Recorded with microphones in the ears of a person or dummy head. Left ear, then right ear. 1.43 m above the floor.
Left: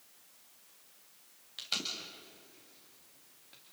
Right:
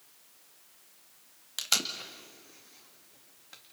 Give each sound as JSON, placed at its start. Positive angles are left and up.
{"t": 1.6, "sound": "tape being pulled", "side_deg": -40, "distance_m": 2.0}